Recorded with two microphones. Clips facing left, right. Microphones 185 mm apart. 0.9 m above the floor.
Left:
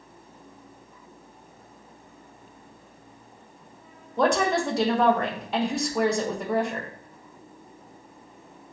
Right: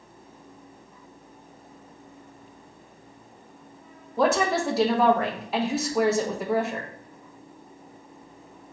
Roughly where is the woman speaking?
Centre.